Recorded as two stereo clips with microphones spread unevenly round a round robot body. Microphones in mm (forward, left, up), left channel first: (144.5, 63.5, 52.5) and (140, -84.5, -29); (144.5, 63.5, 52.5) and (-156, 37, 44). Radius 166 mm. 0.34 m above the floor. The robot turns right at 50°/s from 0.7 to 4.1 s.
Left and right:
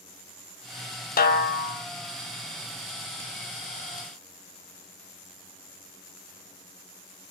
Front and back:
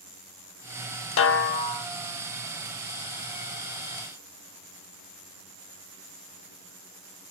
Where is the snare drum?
50° left, 0.6 m; by 1.9 s 85° left, 0.6 m.